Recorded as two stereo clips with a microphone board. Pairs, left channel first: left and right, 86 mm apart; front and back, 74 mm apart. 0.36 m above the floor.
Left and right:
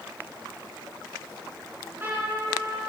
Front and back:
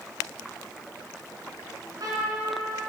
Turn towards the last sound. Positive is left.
turn(degrees=-155)